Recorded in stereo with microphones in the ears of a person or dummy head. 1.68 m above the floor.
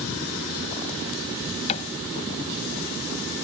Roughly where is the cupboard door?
Left.